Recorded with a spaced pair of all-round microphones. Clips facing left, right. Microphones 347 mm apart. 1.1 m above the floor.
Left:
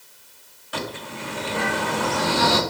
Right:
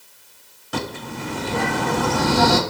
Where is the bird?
55° right (ahead or behind), 1.0 m.